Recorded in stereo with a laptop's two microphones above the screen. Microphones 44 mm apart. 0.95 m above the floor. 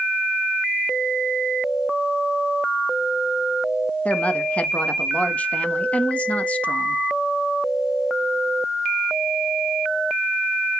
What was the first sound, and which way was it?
A woman speaking, 30° left (ahead or behind).